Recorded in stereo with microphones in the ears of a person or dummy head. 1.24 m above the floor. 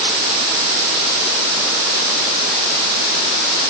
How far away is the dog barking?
No dog barking in this recording.